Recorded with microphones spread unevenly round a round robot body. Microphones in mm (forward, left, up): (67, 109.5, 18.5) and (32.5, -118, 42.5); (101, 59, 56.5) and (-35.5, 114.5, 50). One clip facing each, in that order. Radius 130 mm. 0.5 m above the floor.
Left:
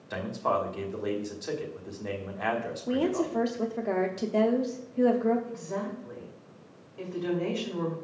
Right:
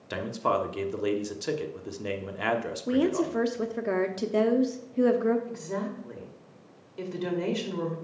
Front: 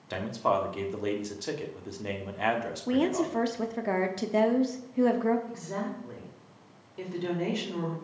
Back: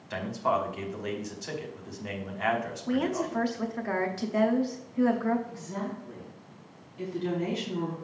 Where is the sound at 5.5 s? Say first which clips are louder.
Right 1 dB, front 1 dB; 60° right, 2 m.